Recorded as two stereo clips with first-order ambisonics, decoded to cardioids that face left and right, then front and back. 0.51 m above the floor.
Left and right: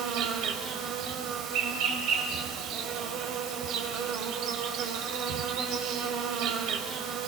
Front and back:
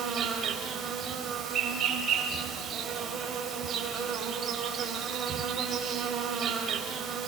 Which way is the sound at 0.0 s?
120° right.